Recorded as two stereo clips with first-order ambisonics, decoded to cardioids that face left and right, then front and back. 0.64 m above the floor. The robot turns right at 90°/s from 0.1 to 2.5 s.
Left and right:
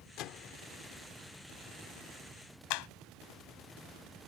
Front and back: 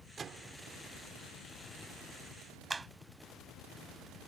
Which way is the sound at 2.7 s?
100° left.